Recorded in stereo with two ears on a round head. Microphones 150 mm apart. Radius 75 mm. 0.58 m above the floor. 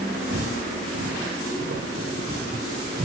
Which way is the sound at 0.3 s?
75° right (ahead or behind).